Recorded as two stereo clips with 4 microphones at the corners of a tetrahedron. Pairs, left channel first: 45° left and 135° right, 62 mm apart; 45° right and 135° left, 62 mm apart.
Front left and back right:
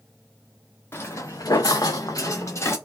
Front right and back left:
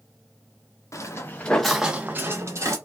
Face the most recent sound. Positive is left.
turn(degrees=95)